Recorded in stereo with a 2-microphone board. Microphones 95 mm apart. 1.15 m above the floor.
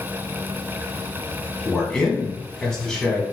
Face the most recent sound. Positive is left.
turn(degrees=10)  # may be behind; listen again after turning